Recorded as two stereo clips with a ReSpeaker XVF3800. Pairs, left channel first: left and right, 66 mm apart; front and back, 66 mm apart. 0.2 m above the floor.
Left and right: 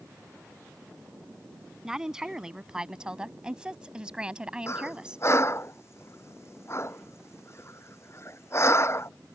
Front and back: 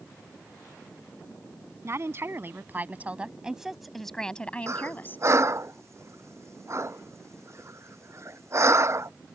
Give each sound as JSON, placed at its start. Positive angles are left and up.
{"t": 1.8, "sound": "a woman speaking", "azimuth_deg": -165}
{"t": 4.7, "sound": "breathing", "azimuth_deg": 135}